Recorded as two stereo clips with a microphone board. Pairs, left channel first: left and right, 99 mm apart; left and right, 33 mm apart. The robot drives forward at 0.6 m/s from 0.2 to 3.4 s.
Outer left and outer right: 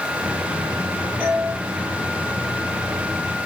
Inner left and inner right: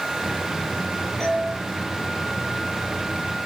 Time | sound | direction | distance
1.2 | a doorbell | 20° left (ahead or behind) | 9 m